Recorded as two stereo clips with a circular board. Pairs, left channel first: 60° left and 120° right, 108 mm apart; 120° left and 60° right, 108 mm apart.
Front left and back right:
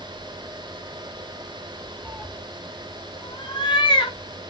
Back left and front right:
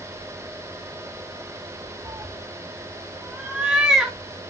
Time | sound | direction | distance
2.0 | a cat meowing | 60° right | 0.8 m